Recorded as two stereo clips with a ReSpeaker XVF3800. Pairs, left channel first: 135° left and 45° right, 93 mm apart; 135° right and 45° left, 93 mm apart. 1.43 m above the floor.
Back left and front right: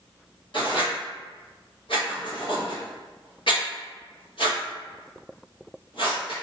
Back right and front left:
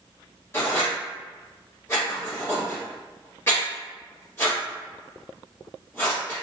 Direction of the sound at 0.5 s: 165° left.